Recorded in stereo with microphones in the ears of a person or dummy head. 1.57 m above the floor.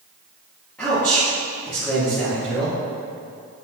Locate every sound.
0.8 s a man speaking: 10° left (ahead or behind), 2.5 m